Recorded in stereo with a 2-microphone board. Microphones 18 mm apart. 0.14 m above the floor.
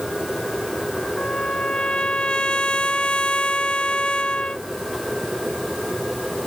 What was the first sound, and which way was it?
A trumpet, 85° left.